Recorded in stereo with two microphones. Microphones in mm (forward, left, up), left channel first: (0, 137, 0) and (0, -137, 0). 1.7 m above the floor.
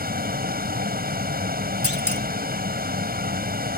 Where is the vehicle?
35° right (ahead or behind).